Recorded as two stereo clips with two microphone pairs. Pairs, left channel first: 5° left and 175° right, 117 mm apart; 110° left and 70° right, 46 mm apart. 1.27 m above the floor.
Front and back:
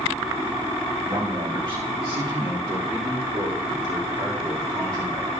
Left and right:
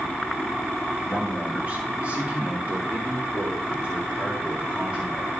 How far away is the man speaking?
About 1.3 m.